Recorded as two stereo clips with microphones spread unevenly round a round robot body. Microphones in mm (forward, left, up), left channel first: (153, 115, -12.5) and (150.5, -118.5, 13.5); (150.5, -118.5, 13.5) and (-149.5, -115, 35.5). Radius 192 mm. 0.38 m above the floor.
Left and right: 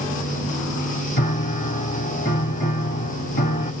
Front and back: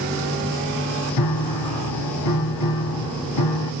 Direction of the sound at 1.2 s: 35° left.